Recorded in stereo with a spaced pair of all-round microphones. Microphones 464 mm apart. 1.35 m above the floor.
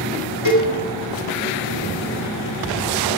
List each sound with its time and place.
0.5 s a cowbell: 75° left (ahead or behind), 2.5 m